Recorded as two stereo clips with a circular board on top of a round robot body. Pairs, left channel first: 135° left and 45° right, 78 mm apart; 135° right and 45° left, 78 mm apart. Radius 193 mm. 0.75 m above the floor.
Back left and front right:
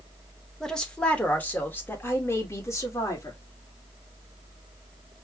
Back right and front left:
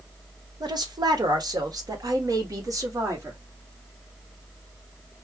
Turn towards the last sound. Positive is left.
turn(degrees=90)